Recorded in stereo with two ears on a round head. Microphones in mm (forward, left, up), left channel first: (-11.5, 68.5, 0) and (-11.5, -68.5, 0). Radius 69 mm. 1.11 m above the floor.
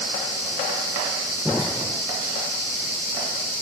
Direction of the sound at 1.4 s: Centre (ahead or behind).